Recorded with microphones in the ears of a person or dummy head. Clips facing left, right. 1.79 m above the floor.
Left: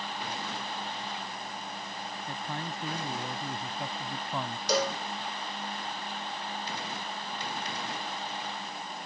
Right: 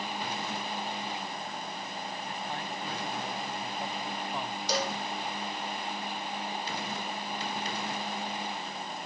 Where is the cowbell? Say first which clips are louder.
Left 4 dB; 75° left (ahead or behind).